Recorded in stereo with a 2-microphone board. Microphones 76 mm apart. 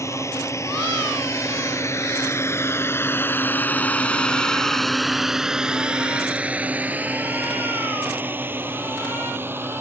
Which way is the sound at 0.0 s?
40° left (ahead or behind).